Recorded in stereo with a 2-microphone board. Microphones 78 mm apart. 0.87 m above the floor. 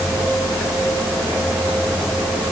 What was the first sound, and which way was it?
Only background noise.